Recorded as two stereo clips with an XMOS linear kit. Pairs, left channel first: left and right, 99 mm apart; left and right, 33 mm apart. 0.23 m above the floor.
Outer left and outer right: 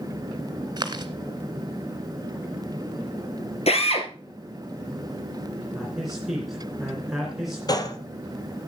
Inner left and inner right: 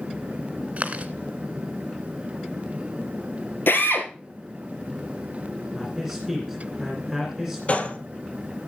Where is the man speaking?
Centre (ahead or behind), 3 m.